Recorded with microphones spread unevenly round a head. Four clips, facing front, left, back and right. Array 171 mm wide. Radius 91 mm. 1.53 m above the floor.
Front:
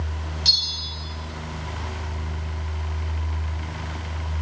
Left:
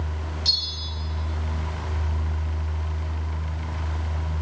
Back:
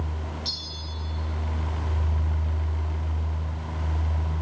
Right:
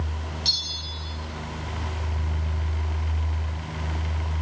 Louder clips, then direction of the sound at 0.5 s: Even, front 3 dB; 15° right.